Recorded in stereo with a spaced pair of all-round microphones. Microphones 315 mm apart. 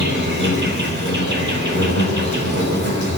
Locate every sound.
0.0 s an insect: 35° right (ahead or behind), 4 m